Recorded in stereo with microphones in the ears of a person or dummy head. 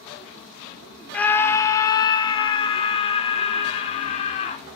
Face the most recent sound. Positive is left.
turn(degrees=40)  # may be behind; listen again after turning